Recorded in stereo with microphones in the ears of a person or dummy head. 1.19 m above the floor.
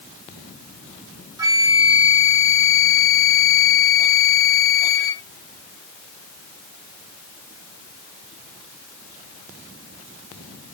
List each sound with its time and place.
1.4 s a flute: 20° right (ahead or behind), 0.7 m